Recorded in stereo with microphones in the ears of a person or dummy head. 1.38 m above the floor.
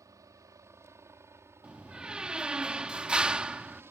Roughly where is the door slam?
Centre.